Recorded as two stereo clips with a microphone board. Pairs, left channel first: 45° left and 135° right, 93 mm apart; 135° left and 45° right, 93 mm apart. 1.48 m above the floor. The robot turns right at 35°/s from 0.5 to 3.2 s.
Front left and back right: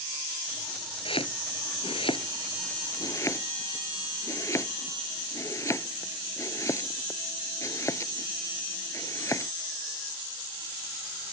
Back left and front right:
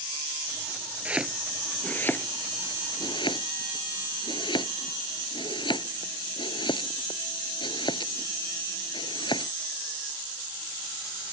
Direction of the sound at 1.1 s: 30° left.